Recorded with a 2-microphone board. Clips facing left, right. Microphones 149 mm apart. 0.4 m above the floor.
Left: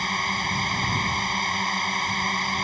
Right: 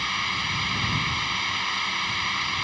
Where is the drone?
45° left (ahead or behind).